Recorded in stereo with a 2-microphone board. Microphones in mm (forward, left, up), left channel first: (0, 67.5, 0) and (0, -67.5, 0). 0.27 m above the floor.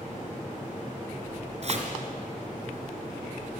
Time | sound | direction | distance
1.6 | chopping | 55° right (ahead or behind) | 4 m